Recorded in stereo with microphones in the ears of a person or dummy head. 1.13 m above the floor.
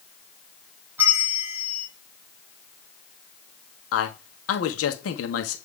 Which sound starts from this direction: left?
A man speaking, at 3.9 s.